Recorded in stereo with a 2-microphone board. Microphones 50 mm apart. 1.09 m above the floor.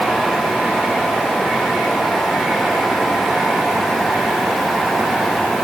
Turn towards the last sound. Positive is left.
No sound to turn to.